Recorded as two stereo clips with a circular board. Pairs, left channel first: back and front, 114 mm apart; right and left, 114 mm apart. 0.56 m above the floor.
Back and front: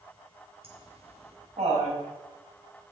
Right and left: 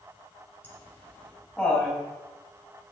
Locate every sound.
0.6 s laughter: 20° right, 3.5 m; by 2.0 s 5° right, 4 m